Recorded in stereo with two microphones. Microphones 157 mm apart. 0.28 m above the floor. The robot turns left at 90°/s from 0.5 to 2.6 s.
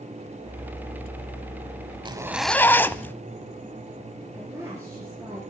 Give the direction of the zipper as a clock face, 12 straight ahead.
5 o'clock.